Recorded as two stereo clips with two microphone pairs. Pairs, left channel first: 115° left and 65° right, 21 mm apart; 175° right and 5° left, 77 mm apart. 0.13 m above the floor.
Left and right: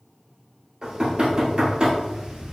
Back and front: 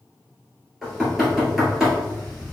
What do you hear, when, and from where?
0.8 s knocking: 75° right, 1.9 m